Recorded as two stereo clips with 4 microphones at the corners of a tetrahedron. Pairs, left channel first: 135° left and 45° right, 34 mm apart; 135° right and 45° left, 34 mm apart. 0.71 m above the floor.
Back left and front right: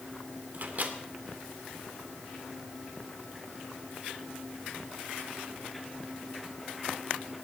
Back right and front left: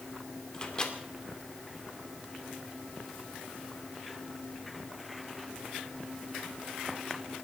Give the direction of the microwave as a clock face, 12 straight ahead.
2 o'clock.